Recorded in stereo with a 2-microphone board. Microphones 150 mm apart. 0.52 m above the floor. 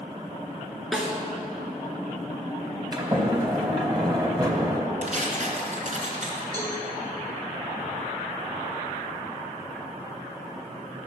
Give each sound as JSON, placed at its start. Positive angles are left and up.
{"t": 0.9, "sound": "a snare drum", "side_deg": 0, "distance_m": 2.0}
{"t": 2.9, "sound": "a sliding door", "side_deg": -30, "distance_m": 2.5}
{"t": 5.0, "sound": "tearing paper", "side_deg": -60, "distance_m": 2.5}
{"t": 6.5, "sound": "a cowbell", "side_deg": -25, "distance_m": 3.5}